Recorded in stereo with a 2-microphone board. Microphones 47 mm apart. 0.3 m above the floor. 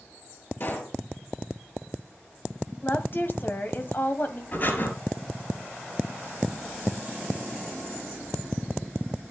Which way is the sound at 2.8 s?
45° left (ahead or behind).